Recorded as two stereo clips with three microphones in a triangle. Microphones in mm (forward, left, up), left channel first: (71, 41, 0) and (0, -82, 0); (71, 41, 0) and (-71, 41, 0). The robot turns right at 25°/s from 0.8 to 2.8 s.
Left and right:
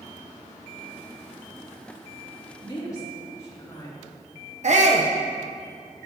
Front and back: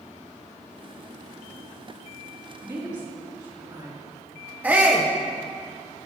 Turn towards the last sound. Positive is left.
turn(degrees=-105)